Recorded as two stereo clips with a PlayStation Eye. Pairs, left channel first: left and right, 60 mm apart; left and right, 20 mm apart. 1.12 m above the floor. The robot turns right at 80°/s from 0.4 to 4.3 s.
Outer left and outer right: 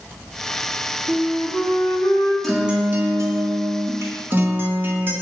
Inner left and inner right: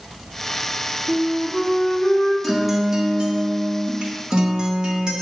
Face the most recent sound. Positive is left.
turn(degrees=-35)